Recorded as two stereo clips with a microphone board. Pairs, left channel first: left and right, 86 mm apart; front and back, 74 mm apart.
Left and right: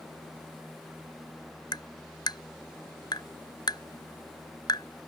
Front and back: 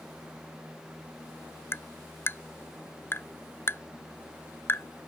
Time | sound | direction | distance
1.7 | tapping | 55° left | ?